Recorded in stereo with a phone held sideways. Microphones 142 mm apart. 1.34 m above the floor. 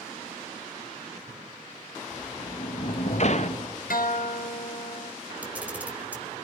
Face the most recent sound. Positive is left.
turn(degrees=-10)  # may be behind; listen again after turning